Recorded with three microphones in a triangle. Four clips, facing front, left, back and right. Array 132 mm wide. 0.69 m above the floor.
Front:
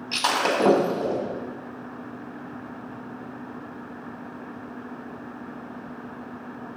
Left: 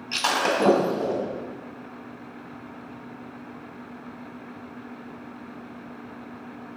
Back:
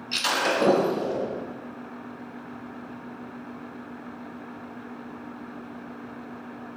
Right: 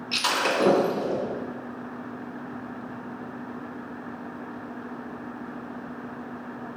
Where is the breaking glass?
30° left, 1.8 m.